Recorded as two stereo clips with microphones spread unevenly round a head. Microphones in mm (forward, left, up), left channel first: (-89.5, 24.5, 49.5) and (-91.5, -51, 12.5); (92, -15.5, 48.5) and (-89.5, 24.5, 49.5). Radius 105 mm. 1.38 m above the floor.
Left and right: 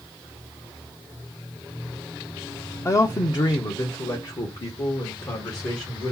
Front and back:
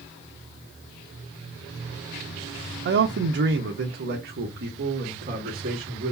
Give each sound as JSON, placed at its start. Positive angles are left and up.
{"t": 2.9, "sound": "a man speaking", "azimuth_deg": 155, "distance_m": 0.6}